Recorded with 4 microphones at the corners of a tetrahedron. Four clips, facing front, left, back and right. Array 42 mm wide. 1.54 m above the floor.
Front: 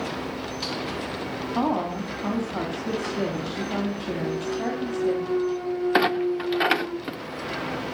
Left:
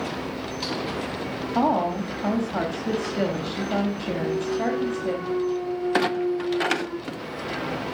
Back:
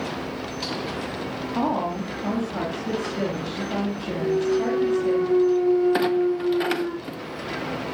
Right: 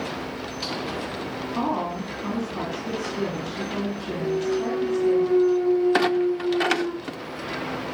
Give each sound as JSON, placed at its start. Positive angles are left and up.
{"t": 1.6, "sound": "a woman speaking", "azimuth_deg": 90, "distance_m": 3.0}
{"t": 4.2, "sound": "a clunk", "azimuth_deg": 180, "distance_m": 3.0}
{"t": 5.9, "sound": "a clunk", "azimuth_deg": 0, "distance_m": 0.6}